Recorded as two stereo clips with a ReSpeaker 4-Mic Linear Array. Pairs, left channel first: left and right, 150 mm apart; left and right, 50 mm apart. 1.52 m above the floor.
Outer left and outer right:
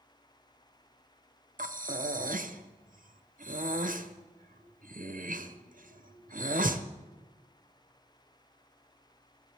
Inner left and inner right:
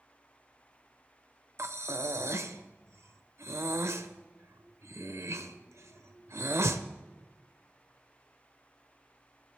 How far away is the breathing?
About 0.8 m.